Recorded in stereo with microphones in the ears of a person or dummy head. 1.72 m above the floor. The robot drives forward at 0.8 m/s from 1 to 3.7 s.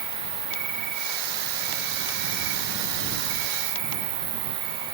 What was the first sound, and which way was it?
An insect, 55° right (ahead or behind).